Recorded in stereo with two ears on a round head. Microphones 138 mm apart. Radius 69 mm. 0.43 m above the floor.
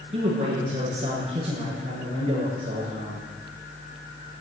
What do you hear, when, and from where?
0.1 s a man speaking: 45° right (ahead or behind), 8.5 m